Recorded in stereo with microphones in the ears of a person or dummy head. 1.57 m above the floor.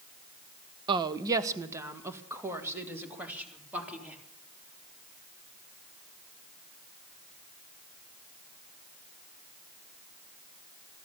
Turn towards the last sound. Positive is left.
turn(degrees=-10)  # may be behind; listen again after turning